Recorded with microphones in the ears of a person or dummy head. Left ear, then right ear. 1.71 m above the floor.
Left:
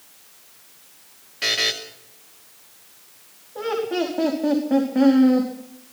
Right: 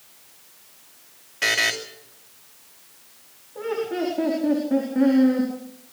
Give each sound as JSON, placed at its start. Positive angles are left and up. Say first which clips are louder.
{"t": 1.4, "sound": "a buzzer", "louder": "right 1 dB", "side_deg": -20, "distance_m": 2.5}
{"t": 3.5, "sound": "laughter", "louder": "left 2 dB", "side_deg": 30, "distance_m": 4.5}